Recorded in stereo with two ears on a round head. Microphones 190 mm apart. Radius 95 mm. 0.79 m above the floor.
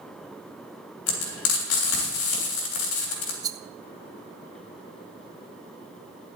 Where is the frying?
70° left (ahead or behind), 3.5 m.